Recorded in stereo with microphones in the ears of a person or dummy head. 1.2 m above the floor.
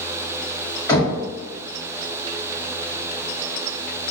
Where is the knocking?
15° left (ahead or behind), 1.5 m.